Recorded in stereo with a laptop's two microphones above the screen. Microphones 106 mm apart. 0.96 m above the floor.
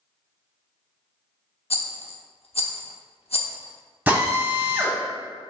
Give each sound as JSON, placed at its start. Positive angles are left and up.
{"t": 1.7, "sound": "a rattle", "side_deg": 75, "distance_m": 0.6}
{"t": 4.1, "sound": "a drill", "side_deg": -15, "distance_m": 1.3}